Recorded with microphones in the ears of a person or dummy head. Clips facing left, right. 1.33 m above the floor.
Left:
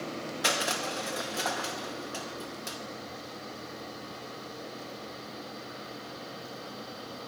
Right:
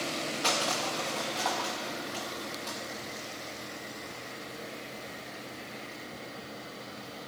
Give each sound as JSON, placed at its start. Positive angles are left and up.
{"t": 0.4, "sound": "crushing", "side_deg": 20, "distance_m": 0.6}